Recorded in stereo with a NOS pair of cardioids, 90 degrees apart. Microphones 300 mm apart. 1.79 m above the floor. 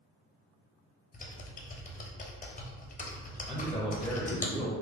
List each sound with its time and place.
1.1 s typing on a keyboard: 25° left, 0.8 m
3.5 s a man speaking: straight ahead, 0.9 m